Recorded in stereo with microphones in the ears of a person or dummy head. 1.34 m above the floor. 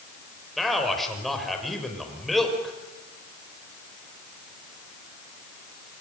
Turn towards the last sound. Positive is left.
turn(degrees=5)  # may be behind; listen again after turning